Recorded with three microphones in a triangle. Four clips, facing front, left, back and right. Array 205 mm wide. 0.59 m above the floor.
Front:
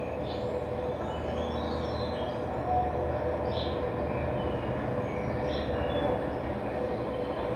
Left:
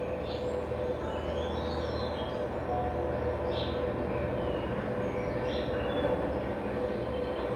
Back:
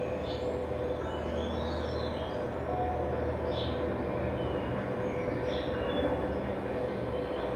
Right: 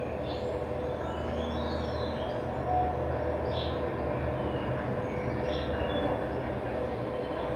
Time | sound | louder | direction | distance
0.0 | an insect | even, even | 15° right | 3.5 m